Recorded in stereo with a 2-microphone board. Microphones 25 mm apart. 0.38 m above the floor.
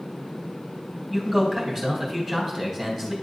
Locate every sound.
1.1 s a man speaking: 10° left (ahead or behind), 2.5 m